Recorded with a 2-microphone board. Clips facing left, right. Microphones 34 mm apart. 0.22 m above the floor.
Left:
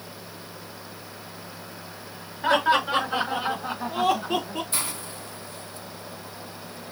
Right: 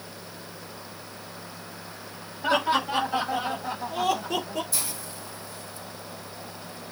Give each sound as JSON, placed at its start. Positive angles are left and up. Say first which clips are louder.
{"t": 2.4, "sound": "laughter", "louder": "left 3 dB", "side_deg": 65, "distance_m": 3.5}
{"t": 4.7, "sound": "a hiss", "louder": "left 3 dB", "side_deg": 50, "distance_m": 0.9}